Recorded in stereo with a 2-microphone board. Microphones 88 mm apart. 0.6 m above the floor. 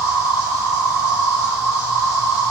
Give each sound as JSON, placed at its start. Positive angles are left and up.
{"t": 0.0, "sound": "an insect", "side_deg": -35, "distance_m": 1.6}